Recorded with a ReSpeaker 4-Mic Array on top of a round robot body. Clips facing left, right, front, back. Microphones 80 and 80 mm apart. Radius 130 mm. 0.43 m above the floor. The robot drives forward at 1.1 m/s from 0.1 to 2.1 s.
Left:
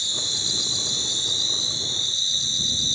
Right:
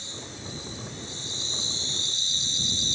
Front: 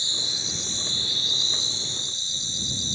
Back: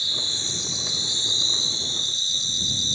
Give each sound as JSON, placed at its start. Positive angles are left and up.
{"t": 0.0, "sound": "an insect", "azimuth_deg": 70}